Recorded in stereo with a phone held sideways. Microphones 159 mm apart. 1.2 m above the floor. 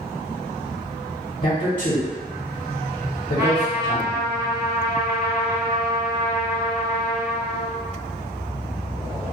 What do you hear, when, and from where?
1.4 s a man speaking: 50° left (ahead or behind), 0.8 m
3.4 s a trumpet: 25° right (ahead or behind), 1.2 m